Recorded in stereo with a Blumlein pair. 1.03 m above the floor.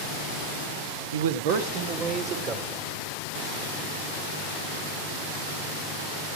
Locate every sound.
1.1 s a man speaking: 65° right, 1.4 m; by 2.8 s 25° right, 3.5 m